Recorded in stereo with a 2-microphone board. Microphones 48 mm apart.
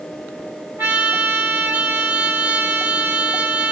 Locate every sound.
0.8 s a trumpet: 55° right (ahead or behind), 2.0 m